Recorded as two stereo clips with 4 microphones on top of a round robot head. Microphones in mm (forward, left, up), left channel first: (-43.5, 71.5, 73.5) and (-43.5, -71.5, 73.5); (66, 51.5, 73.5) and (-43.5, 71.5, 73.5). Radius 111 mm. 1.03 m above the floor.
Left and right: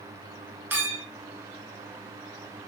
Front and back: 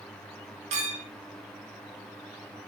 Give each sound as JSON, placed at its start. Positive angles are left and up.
{"t": 0.7, "sound": "a clink", "azimuth_deg": -165, "distance_m": 0.8}